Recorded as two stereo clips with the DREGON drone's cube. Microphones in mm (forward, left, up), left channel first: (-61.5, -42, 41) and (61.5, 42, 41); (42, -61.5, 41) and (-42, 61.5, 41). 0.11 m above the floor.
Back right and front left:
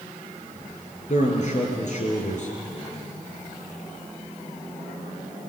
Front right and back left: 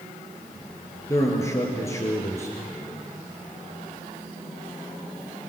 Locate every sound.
1.1 s a man speaking: 125° right, 3 m